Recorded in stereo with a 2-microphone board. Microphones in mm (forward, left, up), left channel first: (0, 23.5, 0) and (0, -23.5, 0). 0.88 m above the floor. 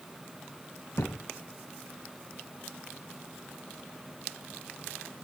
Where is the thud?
75° left (ahead or behind), 1.9 m.